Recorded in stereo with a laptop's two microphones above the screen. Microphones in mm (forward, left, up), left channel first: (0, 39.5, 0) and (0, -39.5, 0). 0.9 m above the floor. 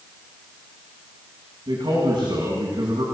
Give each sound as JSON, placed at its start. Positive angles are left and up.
{"t": 1.7, "sound": "a man speaking", "side_deg": -80, "distance_m": 7.0}